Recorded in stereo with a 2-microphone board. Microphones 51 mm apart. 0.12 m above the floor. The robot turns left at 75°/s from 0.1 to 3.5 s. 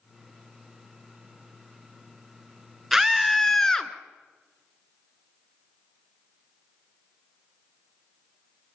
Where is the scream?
160° right, 1.4 m; by 3.9 s 155° left, 1.4 m.